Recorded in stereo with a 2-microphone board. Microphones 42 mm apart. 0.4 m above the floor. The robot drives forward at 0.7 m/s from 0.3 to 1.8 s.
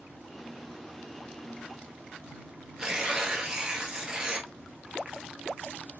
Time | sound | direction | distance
2.8 | tearing paper | 20° right (ahead or behind) | 1.1 m